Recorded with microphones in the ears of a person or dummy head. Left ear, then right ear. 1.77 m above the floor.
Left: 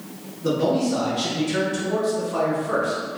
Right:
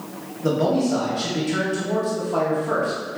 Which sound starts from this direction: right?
A man speaking, at 0.4 s.